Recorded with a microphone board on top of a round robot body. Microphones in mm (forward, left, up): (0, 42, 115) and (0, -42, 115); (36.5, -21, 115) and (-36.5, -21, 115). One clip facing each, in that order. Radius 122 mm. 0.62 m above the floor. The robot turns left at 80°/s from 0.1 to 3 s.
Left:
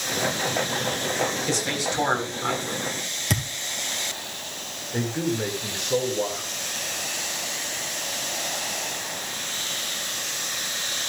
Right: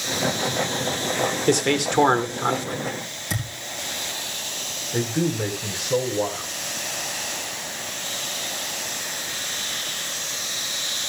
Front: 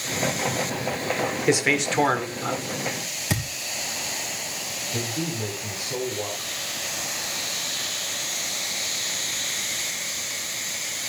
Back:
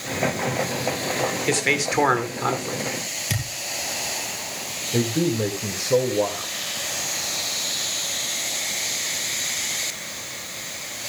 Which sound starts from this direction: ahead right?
A man speaking, at 1.5 s.